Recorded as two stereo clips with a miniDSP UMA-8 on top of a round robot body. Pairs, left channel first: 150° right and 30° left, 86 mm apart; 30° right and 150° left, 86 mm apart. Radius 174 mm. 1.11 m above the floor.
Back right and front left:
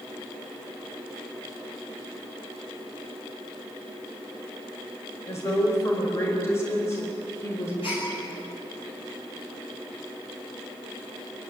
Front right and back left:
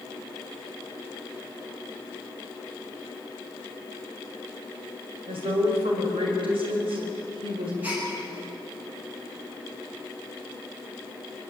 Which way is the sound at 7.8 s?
140° right.